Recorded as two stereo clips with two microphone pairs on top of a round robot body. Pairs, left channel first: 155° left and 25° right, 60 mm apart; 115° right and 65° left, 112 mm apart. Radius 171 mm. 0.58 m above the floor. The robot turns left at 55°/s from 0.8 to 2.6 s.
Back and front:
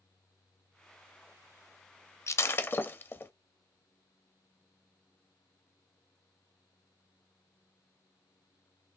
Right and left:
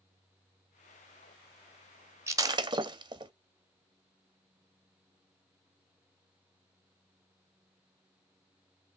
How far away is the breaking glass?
About 0.7 m.